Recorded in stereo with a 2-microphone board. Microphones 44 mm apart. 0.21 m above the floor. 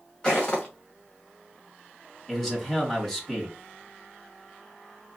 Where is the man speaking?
10° left (ahead or behind), 1.8 m.